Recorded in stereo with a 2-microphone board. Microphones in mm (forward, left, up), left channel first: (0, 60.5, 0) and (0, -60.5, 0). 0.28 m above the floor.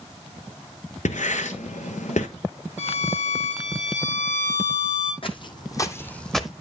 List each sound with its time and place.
1.1 s writing: 80° left, 1.0 m
2.8 s a violin: 80° left, 5.5 m
5.2 s footsteps: 50° left (ahead or behind), 1.0 m; by 6.5 s 5° right (ahead or behind), 0.8 m